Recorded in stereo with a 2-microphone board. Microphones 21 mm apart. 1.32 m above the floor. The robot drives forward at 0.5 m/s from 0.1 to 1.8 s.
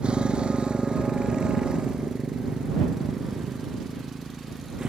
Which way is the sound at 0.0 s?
60° right (ahead or behind).